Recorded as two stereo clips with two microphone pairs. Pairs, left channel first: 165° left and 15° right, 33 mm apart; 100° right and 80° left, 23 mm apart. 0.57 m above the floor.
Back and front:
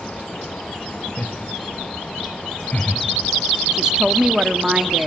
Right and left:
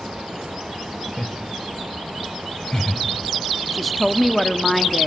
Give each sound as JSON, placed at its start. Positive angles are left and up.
{"t": 1.2, "sound": "laughter", "azimuth_deg": -160, "distance_m": 2.5}
{"t": 3.7, "sound": "a woman speaking", "azimuth_deg": -20, "distance_m": 1.1}